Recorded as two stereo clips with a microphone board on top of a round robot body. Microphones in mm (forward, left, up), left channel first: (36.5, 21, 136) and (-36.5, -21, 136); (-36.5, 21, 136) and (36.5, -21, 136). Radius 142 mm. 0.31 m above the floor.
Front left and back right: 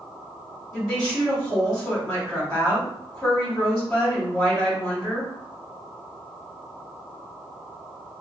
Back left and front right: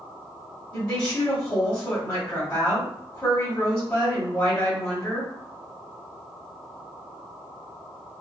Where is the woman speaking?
90° left, 1.8 m.